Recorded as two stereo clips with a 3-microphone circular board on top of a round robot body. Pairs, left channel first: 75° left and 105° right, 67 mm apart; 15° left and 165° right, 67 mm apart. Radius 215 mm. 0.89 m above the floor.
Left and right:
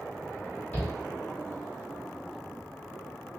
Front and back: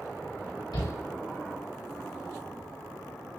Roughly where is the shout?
Ahead.